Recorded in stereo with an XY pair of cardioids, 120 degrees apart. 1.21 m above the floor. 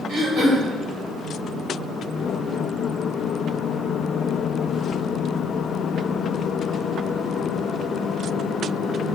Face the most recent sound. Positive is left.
turn(degrees=-65)